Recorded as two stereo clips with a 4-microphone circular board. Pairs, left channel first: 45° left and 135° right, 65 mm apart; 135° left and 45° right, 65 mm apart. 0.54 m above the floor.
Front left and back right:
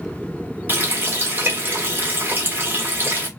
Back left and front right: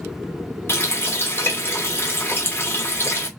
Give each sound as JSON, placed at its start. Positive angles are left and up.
{"t": 0.7, "sound": "a running tap", "azimuth_deg": 175, "distance_m": 1.0}